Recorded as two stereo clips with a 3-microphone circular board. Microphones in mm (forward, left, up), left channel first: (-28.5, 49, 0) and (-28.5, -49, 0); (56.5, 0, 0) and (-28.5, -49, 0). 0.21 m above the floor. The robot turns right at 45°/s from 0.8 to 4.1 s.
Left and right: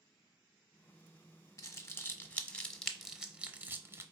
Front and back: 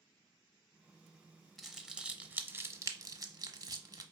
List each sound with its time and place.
1.6 s crumpling: 120° left, 0.7 m; by 4.0 s 130° right, 0.7 m